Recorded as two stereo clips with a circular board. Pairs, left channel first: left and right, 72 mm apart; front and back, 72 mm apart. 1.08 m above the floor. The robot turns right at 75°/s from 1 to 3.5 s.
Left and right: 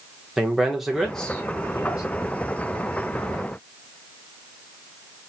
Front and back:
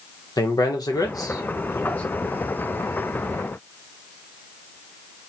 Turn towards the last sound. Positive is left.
turn(degrees=180)